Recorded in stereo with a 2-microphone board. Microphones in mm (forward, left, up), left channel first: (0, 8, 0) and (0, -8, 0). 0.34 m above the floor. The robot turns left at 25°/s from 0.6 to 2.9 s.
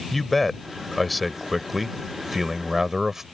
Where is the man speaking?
5° left; by 3.2 s 50° right.